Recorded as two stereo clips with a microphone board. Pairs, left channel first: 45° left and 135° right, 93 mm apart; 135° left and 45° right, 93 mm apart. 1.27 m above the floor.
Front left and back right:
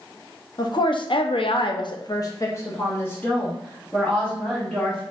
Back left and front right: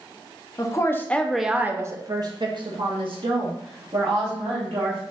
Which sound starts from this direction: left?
A woman speaking, at 0.6 s.